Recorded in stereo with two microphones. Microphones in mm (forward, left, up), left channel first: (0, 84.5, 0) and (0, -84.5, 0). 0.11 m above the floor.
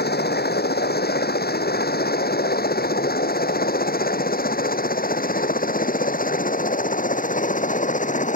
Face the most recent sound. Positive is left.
turn(degrees=50)  # may be behind; listen again after turning